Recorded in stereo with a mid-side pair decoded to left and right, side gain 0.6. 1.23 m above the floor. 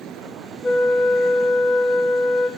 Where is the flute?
30° left, 1.3 m.